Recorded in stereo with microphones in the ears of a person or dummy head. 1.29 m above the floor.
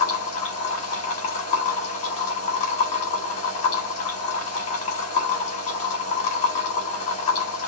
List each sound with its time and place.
0.0 s a machine running: 35° left (ahead or behind), 1.0 m